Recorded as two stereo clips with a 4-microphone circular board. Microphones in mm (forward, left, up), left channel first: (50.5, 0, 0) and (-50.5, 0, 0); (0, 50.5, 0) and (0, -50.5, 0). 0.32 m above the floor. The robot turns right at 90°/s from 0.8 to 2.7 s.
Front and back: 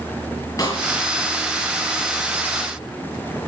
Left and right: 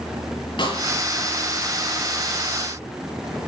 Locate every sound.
0.6 s a snare drum: 55° left, 6.5 m